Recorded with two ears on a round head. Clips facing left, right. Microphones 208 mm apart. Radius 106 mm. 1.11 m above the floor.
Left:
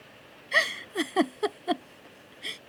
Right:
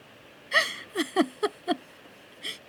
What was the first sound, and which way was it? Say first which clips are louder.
A giggle: right 1 dB; 5° right (ahead or behind).